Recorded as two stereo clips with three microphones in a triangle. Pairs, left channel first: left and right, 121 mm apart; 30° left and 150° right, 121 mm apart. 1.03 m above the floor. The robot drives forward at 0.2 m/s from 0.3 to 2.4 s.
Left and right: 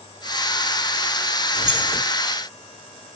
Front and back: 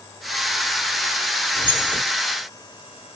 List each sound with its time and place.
1.6 s keys jangling: 100° right, 2.0 m